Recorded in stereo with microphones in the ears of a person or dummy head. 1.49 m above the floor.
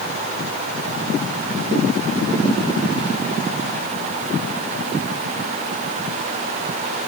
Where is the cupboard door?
I don't hear a cupboard door.